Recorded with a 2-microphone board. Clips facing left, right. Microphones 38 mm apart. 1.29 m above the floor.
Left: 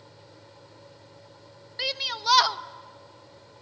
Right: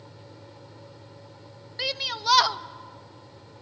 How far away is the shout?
About 0.6 m.